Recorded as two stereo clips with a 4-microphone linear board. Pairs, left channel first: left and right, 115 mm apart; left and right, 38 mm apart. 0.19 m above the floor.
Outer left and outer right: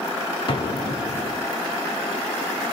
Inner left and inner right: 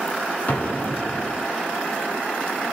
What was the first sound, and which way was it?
An explosion, 45° left (ahead or behind).